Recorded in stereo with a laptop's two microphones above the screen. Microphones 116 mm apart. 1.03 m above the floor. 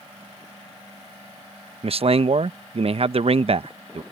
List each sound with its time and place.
1.8 s a man speaking: 55° right (ahead or behind)